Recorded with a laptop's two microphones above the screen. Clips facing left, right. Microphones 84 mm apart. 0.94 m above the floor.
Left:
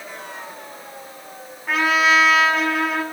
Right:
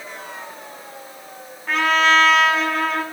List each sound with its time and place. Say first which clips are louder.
1.7 s a trumpet: right 1 dB; 5° left (ahead or behind), 2 m